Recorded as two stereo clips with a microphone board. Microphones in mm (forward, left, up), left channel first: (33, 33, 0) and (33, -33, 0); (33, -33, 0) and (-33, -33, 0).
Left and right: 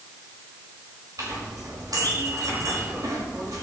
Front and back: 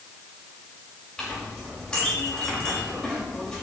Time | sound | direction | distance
1.2 | a clink | 80° right | 5.5 m